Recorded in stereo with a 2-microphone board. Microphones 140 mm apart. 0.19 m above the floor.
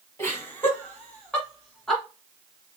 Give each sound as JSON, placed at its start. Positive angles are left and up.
{"t": 0.2, "sound": "laughter", "side_deg": 20, "distance_m": 1.5}